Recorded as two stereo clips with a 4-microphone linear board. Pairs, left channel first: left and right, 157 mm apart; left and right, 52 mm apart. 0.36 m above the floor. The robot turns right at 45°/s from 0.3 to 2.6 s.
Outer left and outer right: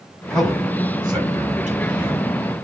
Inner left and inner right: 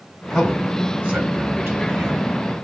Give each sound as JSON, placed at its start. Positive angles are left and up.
{"t": 0.3, "sound": "a man speaking", "side_deg": 5, "distance_m": 2.0}